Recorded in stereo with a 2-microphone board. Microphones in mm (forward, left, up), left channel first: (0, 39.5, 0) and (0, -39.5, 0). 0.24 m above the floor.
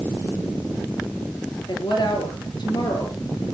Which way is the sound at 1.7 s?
75° left (ahead or behind).